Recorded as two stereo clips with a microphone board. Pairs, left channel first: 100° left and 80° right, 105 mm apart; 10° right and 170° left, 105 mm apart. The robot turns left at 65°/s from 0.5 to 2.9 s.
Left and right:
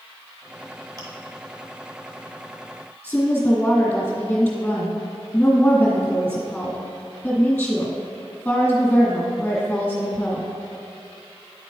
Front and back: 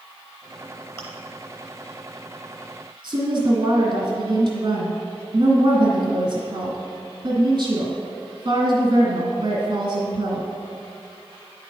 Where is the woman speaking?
175° left, 2 m.